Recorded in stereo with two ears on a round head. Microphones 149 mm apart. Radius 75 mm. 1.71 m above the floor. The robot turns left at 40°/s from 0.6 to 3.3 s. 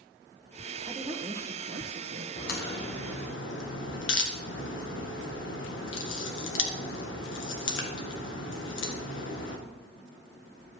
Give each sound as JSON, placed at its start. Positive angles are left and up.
{"t": 0.8, "sound": "a woman speaking", "azimuth_deg": -20, "distance_m": 1.3}
{"t": 2.4, "sound": "a crack", "side_deg": 55, "distance_m": 1.8}